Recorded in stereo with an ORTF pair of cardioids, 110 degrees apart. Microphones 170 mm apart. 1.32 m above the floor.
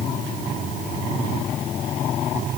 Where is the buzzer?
No buzzer in this recording.